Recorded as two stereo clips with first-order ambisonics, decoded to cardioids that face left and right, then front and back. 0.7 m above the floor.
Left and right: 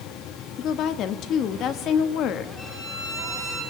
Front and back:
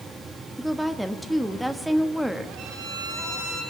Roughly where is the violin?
Behind left.